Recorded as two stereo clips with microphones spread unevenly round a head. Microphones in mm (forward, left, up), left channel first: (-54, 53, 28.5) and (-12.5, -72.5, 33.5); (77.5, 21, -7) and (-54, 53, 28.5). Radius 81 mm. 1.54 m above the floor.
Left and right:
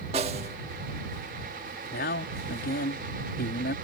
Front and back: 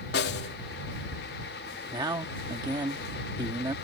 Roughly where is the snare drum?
Ahead.